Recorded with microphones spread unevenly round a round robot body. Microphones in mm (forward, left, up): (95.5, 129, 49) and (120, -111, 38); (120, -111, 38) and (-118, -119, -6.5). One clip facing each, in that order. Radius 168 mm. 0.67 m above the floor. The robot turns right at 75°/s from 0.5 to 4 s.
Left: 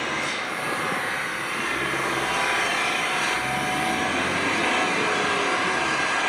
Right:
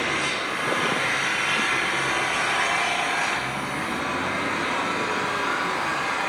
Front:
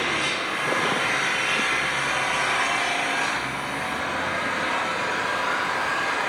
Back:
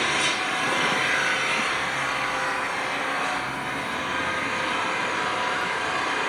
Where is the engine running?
155° right, 9 m; by 6.3 s 110° left, 9 m.